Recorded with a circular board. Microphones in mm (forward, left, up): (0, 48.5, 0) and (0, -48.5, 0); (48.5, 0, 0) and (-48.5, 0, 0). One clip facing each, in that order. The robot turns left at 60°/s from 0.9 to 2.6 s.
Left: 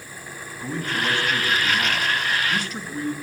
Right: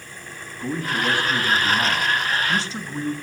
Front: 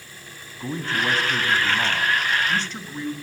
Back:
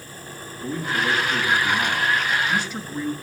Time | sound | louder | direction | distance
0.6 | a man speaking | right 2 dB, back 1 dB | 10° right | 1.2 m